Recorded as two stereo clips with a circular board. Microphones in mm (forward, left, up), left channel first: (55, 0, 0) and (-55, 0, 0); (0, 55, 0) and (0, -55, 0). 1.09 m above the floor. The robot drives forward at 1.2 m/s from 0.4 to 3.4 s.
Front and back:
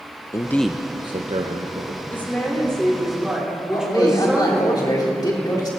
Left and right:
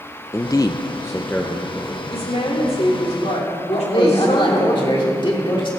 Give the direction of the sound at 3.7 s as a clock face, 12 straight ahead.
10 o'clock.